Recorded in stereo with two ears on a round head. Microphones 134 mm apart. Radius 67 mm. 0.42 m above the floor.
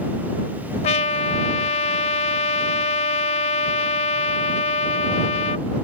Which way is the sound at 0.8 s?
45° left (ahead or behind).